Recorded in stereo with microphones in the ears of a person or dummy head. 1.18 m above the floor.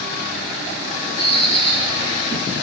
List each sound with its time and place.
1.2 s a bird: 30° left (ahead or behind), 2.5 m